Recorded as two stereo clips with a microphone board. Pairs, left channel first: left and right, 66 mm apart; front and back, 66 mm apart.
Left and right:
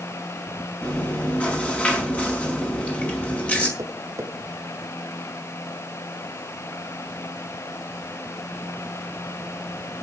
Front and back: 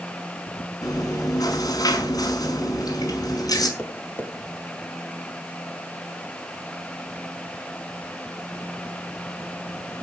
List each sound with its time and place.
0.8 s chewing: 20° left, 5.5 m
3.8 s tapping: 55° right, 1.7 m